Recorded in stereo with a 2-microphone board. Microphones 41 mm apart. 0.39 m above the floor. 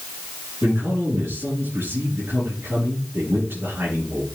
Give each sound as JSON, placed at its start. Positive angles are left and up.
{"t": 0.6, "sound": "a man speaking", "side_deg": -70, "distance_m": 5.5}